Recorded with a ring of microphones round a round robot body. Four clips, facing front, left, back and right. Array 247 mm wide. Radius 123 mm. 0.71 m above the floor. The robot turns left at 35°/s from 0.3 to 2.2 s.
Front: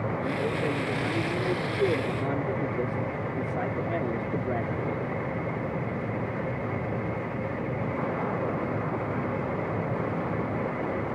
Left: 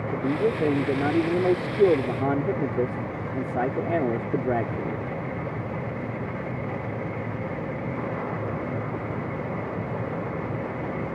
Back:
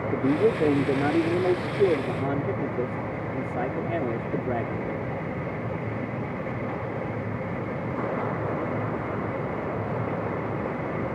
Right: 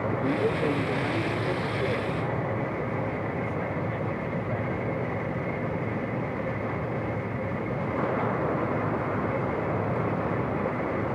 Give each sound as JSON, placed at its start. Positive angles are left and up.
{"t": 0.1, "sound": "a man speaking", "azimuth_deg": 165}